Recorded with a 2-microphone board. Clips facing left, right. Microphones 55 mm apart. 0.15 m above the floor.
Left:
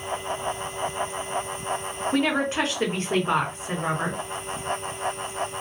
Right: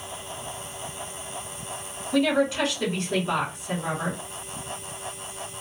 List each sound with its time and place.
2.1 s a woman speaking: 40° left (ahead or behind), 1.3 m